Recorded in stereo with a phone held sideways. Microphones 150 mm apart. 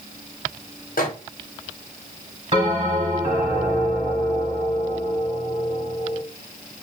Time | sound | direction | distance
1.0 | a microwave | 70° left (ahead or behind) | 0.7 m
2.5 | a bell | 45° right (ahead or behind) | 1.6 m